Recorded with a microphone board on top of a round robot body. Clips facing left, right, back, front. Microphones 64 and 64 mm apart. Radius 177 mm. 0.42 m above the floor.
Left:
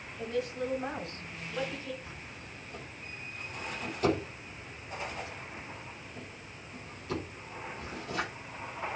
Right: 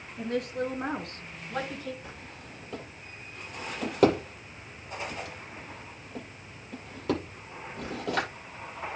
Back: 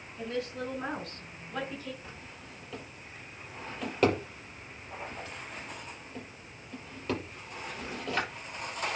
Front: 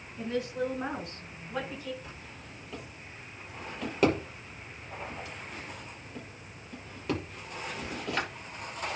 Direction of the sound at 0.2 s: 70° right.